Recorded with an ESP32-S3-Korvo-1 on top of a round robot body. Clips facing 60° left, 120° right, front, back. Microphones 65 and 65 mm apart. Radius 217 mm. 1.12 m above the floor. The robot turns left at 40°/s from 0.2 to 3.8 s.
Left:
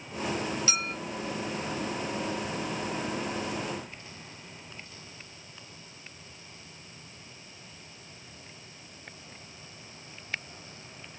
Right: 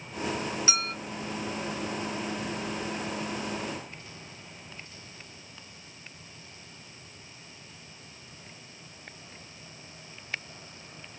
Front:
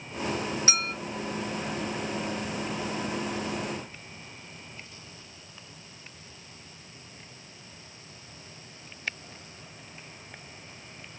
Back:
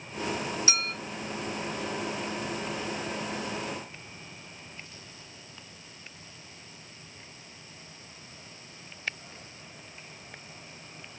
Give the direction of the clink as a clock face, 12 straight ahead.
2 o'clock.